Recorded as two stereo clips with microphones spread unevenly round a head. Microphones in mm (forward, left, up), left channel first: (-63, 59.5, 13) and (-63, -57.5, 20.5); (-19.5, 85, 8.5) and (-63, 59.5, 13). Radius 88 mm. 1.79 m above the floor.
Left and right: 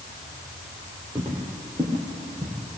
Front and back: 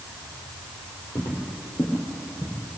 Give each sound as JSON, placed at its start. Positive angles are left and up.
{"t": 1.1, "sound": "footsteps", "azimuth_deg": -20, "distance_m": 3.5}